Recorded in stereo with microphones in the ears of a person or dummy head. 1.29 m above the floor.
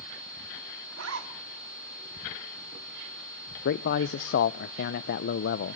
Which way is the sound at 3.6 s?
70° left (ahead or behind).